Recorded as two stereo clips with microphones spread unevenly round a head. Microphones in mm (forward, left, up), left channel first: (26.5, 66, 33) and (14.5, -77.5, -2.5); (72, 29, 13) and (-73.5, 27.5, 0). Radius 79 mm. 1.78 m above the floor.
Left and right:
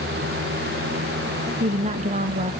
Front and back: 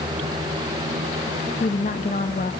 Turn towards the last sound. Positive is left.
turn(degrees=-50)